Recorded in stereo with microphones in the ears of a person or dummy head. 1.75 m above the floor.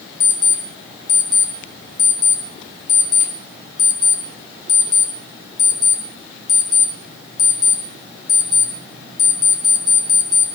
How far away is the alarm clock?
About 1.7 m.